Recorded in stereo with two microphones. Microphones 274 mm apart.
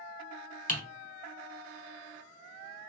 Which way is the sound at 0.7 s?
30° left (ahead or behind).